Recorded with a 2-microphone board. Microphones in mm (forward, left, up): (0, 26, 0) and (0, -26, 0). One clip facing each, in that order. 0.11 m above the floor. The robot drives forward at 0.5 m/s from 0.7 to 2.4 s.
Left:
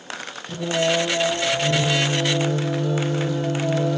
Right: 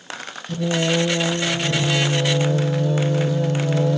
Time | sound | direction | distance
0.5 | singing | 20° left (ahead or behind) | 0.9 m